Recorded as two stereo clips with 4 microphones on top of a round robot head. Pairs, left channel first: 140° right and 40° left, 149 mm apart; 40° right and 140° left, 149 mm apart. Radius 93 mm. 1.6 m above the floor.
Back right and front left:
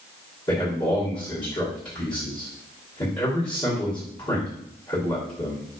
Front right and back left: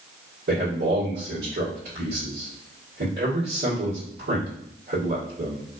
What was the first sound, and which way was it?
A man speaking, 160° left.